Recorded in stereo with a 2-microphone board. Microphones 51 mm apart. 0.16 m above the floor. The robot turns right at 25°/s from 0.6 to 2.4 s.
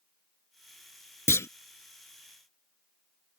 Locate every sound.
1.3 s a clunk: 60° left (ahead or behind)